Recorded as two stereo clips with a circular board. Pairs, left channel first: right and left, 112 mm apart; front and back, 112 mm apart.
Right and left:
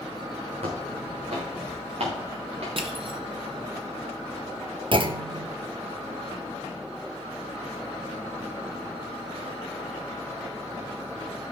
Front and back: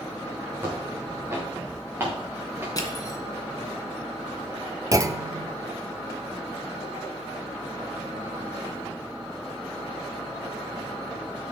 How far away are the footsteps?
About 4 m.